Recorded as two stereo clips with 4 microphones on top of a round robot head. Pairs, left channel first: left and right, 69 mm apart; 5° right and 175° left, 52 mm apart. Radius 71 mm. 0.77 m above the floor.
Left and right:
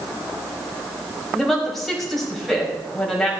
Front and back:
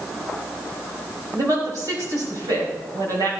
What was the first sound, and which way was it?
A woman speaking, 175° left.